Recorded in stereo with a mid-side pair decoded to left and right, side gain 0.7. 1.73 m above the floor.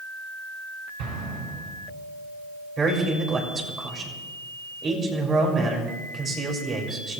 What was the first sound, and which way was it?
An explosion, 65° right.